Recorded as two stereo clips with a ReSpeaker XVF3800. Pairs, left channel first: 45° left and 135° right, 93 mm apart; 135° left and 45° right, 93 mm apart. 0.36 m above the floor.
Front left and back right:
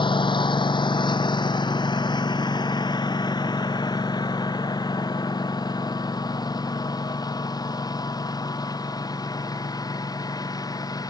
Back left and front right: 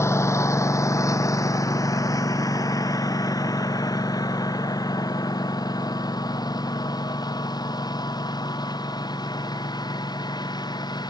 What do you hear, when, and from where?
0.0 s a lawn mower: 75° left; by 11.1 s 95° left